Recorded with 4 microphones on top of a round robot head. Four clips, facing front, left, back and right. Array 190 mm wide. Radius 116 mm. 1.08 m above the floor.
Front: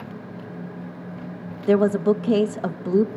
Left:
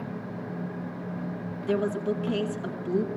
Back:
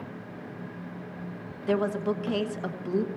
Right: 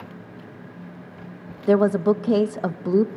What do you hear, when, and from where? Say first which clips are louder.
1.7 s a woman speaking: right 9 dB, front 9 dB; 60° right, 1.2 m